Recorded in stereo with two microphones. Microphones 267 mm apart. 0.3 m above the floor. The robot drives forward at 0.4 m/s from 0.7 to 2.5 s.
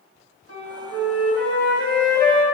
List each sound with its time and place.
0.5 s a flute: 60° right (ahead or behind), 1.0 m; by 2.4 s 35° right (ahead or behind), 1.4 m